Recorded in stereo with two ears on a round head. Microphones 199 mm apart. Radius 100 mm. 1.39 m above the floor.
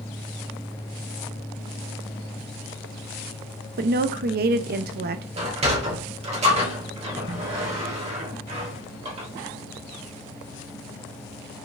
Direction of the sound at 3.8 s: 40° right (ahead or behind).